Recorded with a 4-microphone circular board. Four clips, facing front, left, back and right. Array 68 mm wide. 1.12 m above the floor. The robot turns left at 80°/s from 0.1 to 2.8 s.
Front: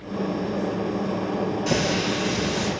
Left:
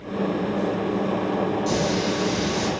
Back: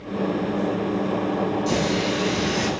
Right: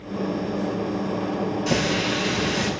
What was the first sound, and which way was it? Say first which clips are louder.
A running tap: even, back 1 dB; 45° right.